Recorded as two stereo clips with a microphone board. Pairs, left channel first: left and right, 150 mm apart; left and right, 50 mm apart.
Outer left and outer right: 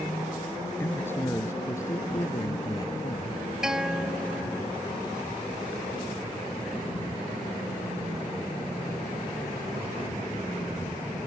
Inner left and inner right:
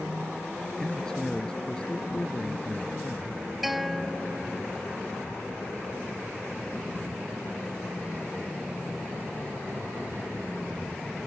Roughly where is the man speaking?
Centre.